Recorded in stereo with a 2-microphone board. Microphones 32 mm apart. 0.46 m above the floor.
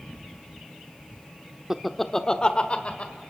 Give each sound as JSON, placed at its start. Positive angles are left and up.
{"t": 1.7, "sound": "laughter", "side_deg": -15, "distance_m": 0.7}